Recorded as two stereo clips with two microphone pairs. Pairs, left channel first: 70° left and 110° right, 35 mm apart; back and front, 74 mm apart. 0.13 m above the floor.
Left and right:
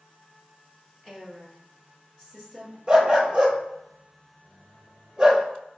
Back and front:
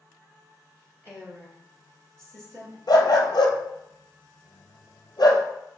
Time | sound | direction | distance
1.0 | a woman speaking | 40° right | 1.8 m
2.9 | a dog barking | 170° right | 0.7 m